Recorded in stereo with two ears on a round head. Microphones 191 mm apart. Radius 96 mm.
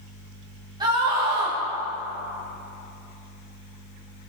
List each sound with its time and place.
0.8 s a scream: 20° right (ahead or behind), 3.5 m